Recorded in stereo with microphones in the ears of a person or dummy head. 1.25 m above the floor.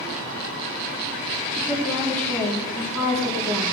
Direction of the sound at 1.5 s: 10° left (ahead or behind).